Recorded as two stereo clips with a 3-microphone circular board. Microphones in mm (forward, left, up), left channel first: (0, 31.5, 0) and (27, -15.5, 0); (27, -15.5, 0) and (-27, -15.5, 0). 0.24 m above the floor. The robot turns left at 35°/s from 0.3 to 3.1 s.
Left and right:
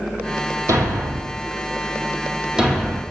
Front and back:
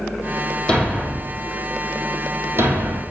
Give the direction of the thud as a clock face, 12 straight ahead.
2 o'clock.